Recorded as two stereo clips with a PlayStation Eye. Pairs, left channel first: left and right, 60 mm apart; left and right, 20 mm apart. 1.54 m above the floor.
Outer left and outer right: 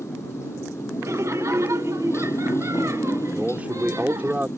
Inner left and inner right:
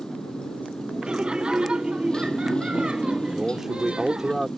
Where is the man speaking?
25° right (ahead or behind).